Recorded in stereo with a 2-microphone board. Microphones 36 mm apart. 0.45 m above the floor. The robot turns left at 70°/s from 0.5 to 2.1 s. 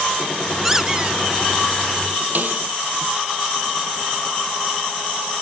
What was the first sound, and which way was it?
A squeak, 15° right.